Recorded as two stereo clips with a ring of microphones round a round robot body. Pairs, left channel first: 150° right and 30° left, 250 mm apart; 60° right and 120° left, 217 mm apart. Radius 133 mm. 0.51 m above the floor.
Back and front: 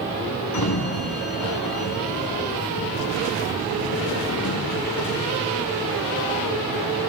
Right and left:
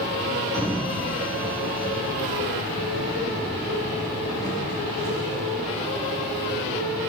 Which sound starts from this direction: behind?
A sliding door, at 0.5 s.